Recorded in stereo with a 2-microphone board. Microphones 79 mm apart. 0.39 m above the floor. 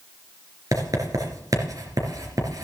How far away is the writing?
About 3.5 m.